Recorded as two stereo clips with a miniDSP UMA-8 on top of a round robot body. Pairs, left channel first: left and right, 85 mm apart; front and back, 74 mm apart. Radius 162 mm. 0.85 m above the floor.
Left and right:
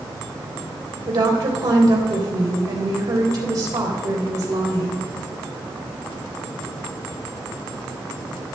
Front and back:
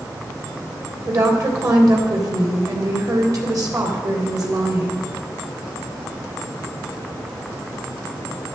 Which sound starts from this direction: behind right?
A woman speaking, at 1.1 s.